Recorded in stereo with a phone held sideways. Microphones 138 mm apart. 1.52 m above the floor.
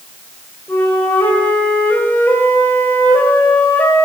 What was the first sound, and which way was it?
A flute, 15° left (ahead or behind).